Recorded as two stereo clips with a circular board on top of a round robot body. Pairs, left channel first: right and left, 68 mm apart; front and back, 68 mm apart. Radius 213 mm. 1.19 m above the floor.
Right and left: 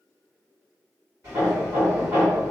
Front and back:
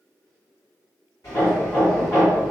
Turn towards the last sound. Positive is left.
turn(degrees=45)